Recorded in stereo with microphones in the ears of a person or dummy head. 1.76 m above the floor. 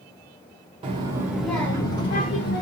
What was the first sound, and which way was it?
A child speaking, 30° right (ahead or behind).